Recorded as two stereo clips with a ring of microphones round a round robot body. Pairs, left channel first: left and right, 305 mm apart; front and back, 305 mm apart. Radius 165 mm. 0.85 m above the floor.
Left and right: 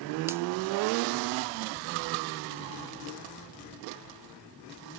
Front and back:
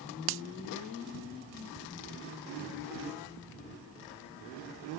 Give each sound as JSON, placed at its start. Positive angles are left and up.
{"t": 0.3, "sound": "a finger snap", "azimuth_deg": -170}